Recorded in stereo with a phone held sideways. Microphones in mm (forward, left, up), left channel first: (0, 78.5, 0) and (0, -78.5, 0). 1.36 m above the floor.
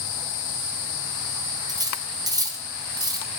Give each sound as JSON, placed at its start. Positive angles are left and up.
{"t": 1.7, "sound": "cutlery clinking", "side_deg": -25, "distance_m": 0.8}